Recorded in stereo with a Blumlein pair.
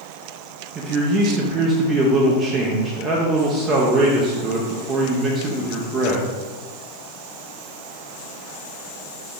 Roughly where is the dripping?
No dripping in this recording.